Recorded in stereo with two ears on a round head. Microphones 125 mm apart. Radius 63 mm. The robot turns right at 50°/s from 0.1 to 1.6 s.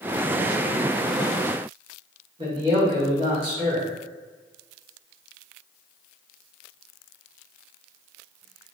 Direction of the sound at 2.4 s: 35° right (ahead or behind).